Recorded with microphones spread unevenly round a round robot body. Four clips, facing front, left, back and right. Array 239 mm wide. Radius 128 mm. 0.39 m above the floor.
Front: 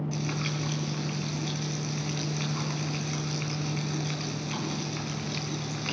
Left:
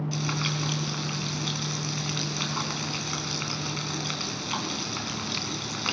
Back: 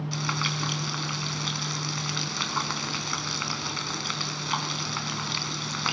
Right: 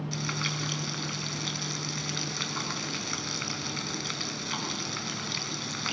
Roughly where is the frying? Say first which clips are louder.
Left 4 dB, back 2 dB; behind.